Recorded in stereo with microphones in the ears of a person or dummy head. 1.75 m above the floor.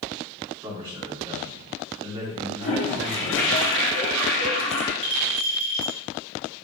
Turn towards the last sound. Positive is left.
turn(degrees=-25)  # may be behind; listen again after turning